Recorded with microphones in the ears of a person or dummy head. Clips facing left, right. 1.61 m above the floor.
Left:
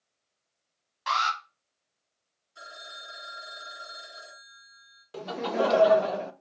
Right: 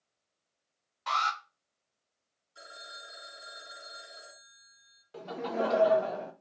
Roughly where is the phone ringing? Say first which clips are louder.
Left 3 dB; centre.